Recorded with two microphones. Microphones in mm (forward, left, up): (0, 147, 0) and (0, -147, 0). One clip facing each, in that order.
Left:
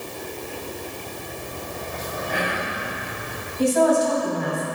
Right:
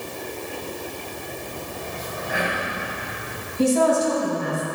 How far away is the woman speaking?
About 2 m.